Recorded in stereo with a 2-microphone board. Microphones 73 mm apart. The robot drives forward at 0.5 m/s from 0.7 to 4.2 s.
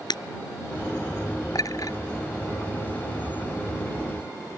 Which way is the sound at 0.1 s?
75° left (ahead or behind).